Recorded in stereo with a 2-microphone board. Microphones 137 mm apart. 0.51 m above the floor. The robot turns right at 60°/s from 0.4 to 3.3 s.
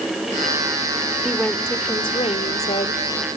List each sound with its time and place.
1.2 s a woman speaking: straight ahead, 1.5 m; by 3.0 s 105° left, 1.5 m